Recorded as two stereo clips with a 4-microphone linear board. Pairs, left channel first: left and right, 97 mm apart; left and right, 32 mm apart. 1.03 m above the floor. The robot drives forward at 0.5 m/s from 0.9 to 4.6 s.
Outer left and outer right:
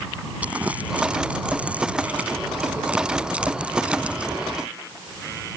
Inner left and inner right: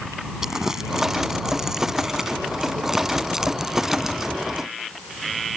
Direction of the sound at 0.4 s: 15° right (ahead or behind).